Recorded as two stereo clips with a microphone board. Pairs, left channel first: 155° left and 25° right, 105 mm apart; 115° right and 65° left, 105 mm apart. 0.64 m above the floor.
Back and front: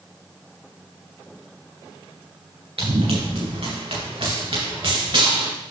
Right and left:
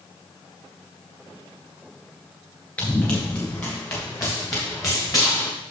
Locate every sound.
2.8 s running footsteps: 45° right, 3.5 m; by 5.5 s 65° right, 4 m